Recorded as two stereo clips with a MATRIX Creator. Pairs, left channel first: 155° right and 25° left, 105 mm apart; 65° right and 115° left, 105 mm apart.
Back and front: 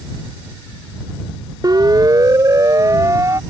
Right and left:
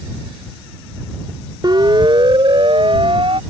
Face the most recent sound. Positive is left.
turn(degrees=80)